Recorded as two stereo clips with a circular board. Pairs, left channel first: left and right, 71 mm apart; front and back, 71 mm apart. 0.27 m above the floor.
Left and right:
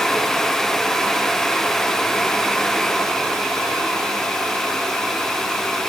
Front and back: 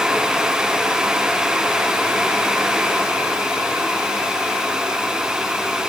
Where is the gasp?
I don't hear a gasp.